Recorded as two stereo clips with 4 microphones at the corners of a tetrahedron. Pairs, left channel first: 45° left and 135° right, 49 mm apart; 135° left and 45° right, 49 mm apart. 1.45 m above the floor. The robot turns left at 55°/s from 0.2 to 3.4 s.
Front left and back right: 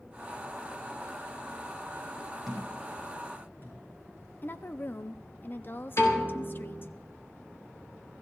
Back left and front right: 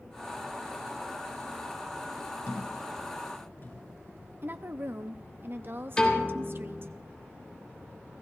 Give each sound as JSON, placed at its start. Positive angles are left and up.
{"t": 2.5, "sound": "a thud", "azimuth_deg": 135, "distance_m": 7.0}
{"t": 4.4, "sound": "a woman speaking", "azimuth_deg": -5, "distance_m": 0.5}
{"t": 6.0, "sound": "a piano", "azimuth_deg": 65, "distance_m": 3.0}